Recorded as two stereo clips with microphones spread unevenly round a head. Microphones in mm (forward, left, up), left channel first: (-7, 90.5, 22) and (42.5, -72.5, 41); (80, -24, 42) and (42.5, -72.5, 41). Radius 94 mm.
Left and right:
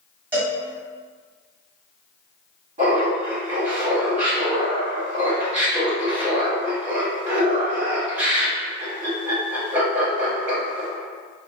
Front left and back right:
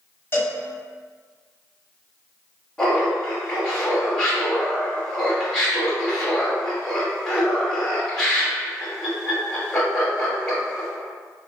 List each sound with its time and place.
0.3 s a cowbell: 5° left, 1.6 m
2.8 s laughter: 20° right, 1.4 m